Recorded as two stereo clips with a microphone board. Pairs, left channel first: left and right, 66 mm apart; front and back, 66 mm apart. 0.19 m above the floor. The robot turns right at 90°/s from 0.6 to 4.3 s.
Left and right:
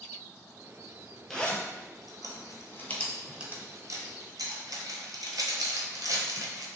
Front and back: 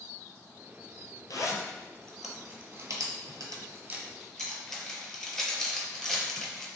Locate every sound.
1.3 s a zipper: 5° left, 0.6 m; by 6.7 s 85° right, 0.6 m